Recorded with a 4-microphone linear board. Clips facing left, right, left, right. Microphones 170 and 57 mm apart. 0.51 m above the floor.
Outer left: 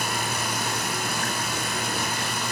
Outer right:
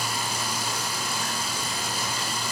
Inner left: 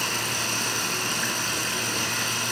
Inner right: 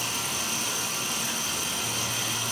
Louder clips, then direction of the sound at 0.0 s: Outer left 2 dB, inner left 4 dB; 55° left (ahead or behind).